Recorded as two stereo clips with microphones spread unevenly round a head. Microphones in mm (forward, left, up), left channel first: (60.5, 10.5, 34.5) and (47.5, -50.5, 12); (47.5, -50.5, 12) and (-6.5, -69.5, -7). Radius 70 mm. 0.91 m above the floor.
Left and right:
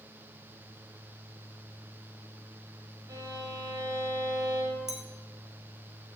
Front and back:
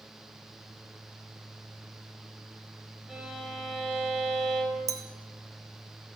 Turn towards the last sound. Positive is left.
turn(degrees=180)